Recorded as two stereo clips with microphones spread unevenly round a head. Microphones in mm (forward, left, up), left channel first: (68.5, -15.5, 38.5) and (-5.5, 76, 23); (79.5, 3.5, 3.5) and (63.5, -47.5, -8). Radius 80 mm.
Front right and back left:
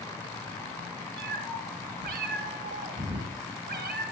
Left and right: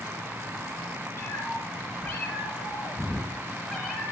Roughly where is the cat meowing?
Behind left.